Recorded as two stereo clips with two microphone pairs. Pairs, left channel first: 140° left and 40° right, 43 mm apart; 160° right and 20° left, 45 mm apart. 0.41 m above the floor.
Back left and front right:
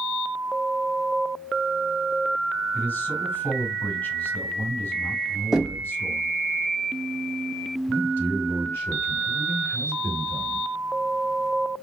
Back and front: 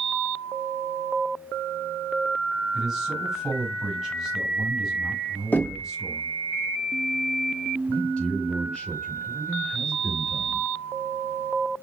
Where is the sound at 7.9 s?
130° left, 4.5 m.